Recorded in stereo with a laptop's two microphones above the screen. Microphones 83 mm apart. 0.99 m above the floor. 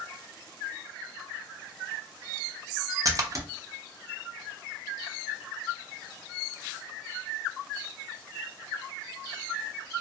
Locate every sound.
3.0 s a splash: 40° right (ahead or behind), 0.5 m